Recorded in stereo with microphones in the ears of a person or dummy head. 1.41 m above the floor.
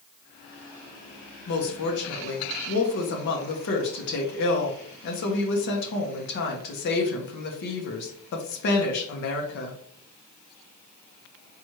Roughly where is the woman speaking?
Left.